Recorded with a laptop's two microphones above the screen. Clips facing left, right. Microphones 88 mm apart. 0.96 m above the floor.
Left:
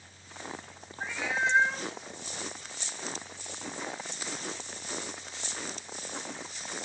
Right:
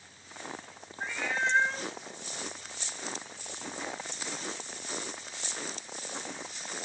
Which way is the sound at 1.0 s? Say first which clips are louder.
Left 1 dB; centre (ahead or behind).